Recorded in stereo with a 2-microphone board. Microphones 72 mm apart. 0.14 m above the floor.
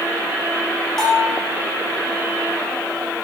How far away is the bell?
About 4 m.